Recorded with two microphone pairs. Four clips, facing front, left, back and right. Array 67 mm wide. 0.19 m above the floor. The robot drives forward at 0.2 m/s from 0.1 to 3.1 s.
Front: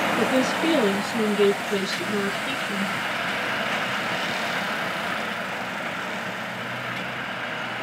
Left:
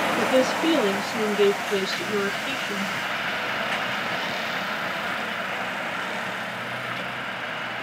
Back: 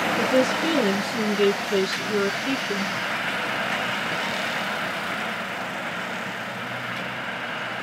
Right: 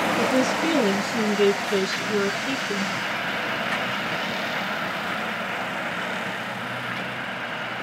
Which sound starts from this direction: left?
A woman speaking, at 0.2 s.